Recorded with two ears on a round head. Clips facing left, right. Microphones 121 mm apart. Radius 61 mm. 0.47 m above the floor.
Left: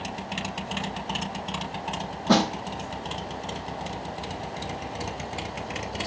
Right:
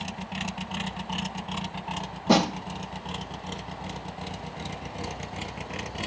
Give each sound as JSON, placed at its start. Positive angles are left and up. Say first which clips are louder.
{"t": 2.3, "sound": "a snare drum", "louder": "even", "side_deg": -15, "distance_m": 1.0}